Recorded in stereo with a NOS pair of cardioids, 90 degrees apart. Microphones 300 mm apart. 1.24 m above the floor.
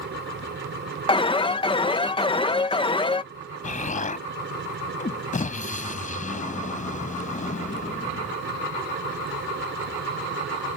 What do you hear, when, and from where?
0.0 s a machine running: 40° right
1.1 s an alarm: 15° left
3.6 s an explosion: 25° left